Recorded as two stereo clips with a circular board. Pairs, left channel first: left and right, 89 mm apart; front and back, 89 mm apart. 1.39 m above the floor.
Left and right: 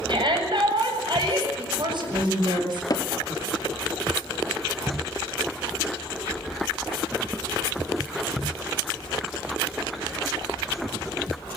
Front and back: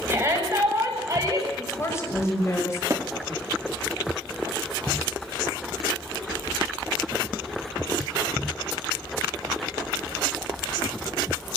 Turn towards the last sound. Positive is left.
turn(degrees=130)